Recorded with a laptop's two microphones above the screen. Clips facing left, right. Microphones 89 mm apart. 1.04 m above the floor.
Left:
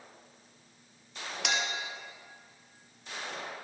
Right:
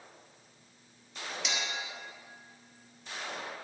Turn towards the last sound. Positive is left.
turn(degrees=60)  # may be behind; listen again after turning